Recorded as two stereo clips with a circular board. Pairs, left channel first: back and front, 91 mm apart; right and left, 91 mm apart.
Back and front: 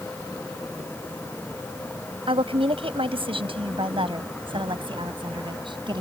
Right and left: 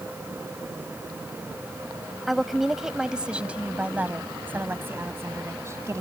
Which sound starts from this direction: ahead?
A woman speaking, at 2.3 s.